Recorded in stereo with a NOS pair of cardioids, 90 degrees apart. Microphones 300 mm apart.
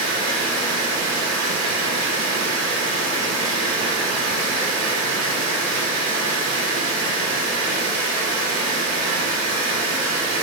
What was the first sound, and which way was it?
Running water, 70° right.